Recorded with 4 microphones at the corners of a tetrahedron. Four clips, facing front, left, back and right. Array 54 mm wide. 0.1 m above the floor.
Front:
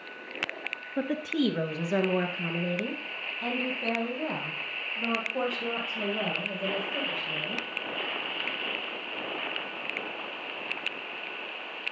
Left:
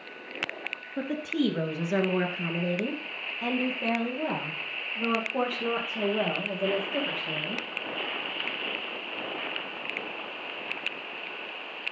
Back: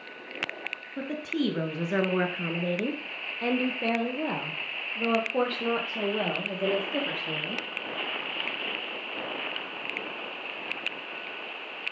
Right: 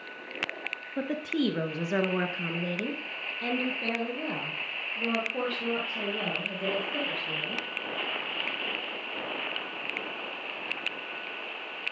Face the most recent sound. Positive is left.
turn(degrees=160)